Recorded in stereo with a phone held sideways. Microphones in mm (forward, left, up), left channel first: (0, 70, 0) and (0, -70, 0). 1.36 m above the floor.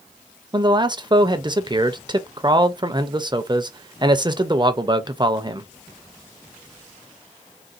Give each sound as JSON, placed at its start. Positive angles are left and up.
{"t": 0.5, "sound": "a man speaking", "side_deg": -30, "distance_m": 0.5}